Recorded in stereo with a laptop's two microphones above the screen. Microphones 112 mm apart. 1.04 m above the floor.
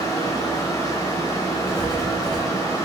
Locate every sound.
0.0 s a fan: 30° left (ahead or behind), 0.9 m
1.7 s writing: 5° left (ahead or behind), 0.9 m